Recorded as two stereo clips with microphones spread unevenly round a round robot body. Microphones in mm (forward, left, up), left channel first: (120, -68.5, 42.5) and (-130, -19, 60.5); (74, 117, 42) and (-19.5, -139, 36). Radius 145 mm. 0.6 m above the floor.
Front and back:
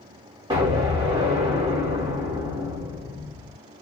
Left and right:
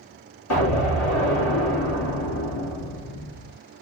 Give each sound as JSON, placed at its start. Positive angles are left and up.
{"t": 0.5, "sound": "an explosion", "azimuth_deg": 95, "distance_m": 1.9}